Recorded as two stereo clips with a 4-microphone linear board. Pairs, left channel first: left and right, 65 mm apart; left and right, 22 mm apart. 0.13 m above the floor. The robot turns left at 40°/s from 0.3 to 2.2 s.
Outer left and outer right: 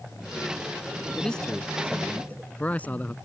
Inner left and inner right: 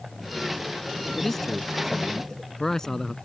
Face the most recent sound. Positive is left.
turn(degrees=25)  # may be behind; listen again after turning